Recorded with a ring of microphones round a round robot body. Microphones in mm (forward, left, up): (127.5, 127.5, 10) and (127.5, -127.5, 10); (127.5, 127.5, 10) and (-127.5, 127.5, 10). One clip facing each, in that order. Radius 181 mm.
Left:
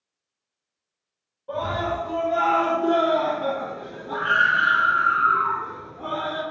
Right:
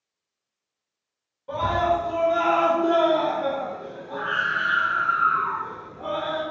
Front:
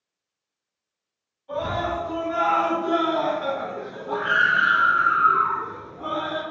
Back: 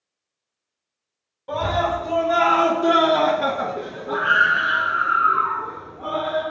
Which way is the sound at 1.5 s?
160° right.